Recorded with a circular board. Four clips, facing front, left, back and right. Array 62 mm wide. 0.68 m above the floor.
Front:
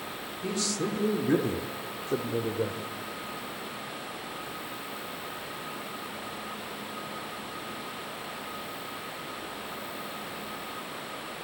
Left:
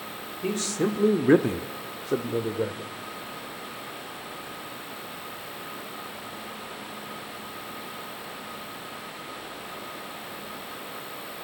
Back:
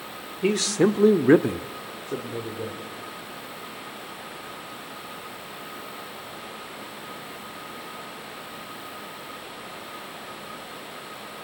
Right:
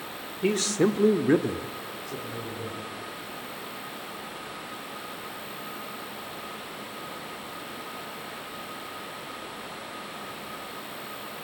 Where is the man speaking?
155° right, 1.8 m; by 2.9 s 70° left, 2.5 m.